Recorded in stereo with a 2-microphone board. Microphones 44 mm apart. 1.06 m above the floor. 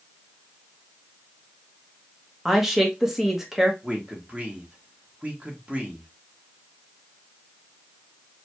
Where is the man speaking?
30° right (ahead or behind), 1.5 m.